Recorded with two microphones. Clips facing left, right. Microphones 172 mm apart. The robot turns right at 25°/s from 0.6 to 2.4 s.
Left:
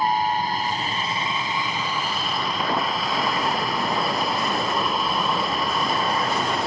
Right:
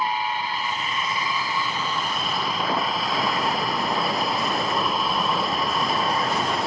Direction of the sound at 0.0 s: 135° left.